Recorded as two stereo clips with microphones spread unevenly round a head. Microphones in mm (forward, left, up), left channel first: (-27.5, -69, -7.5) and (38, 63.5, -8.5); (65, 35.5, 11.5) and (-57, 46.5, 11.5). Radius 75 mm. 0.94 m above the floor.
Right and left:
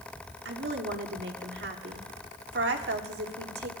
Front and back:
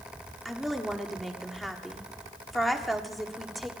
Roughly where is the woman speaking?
Left.